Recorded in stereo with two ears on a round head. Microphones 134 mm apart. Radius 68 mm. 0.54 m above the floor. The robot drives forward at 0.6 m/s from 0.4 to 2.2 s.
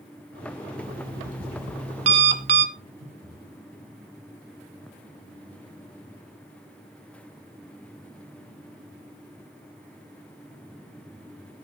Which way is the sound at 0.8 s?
70° right (ahead or behind).